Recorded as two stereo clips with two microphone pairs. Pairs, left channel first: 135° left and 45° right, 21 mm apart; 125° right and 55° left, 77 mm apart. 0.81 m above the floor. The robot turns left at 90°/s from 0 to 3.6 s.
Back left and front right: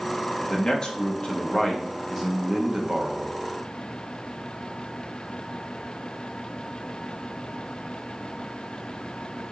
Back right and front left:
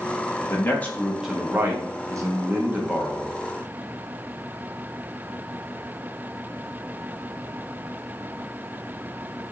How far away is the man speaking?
About 1.1 m.